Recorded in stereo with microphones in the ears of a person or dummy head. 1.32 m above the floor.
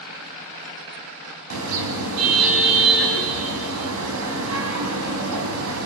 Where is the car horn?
80° right, 4.5 m.